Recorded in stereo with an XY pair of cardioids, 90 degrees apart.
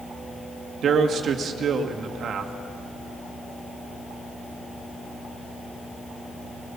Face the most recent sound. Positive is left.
turn(degrees=-70)